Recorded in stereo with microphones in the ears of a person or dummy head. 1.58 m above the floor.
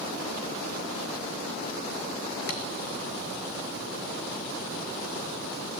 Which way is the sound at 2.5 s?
50° left (ahead or behind).